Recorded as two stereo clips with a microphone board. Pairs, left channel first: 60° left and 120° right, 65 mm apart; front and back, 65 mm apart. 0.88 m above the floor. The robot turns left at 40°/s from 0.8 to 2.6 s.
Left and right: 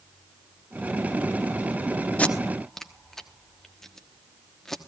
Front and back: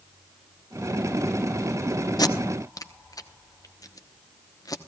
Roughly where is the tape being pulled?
Ahead.